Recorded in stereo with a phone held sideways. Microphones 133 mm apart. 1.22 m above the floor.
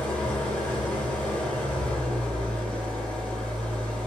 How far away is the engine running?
About 1.2 m.